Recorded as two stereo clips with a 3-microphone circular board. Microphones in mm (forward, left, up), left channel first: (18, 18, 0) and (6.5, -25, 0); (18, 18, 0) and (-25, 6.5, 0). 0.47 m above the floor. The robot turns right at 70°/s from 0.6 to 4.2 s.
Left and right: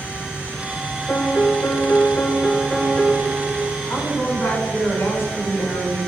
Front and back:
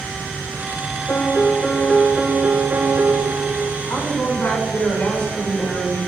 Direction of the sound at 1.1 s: 40° left.